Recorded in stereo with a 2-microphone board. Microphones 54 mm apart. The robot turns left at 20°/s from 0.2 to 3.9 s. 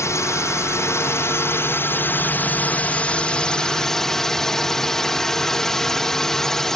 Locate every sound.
0.0 s a drone: 85° left; by 6.8 s 10° left